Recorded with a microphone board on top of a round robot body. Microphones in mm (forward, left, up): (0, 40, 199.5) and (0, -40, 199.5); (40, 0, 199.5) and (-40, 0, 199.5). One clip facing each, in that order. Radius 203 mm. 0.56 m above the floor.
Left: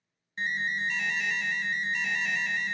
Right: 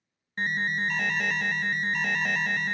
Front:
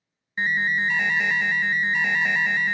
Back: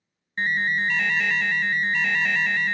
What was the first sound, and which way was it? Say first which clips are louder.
An alarm: right 3 dB, front 1 dB; 65° right.